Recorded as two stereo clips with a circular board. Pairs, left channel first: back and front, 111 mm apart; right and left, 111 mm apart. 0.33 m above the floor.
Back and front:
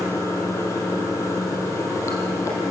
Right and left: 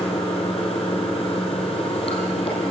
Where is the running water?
120° right, 4 m.